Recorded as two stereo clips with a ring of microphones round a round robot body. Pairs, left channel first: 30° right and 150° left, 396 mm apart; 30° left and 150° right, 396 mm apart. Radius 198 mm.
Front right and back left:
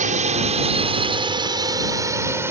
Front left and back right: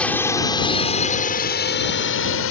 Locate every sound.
0.0 s a drone: 110° left; by 2.5 s 70° left